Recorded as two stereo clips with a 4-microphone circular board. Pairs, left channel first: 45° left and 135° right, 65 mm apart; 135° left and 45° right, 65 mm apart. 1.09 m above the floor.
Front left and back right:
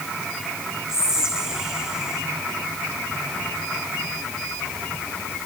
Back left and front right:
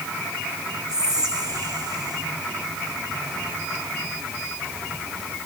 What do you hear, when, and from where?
0.9 s whispering: 55° right, 1.5 m